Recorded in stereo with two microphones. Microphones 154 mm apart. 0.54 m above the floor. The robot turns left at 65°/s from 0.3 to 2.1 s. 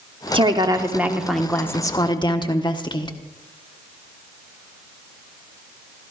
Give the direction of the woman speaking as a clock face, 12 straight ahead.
4 o'clock.